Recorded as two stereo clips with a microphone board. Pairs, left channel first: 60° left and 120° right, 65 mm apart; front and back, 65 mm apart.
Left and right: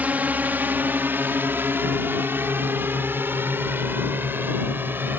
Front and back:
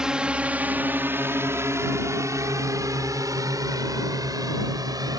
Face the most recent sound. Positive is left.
turn(degrees=-175)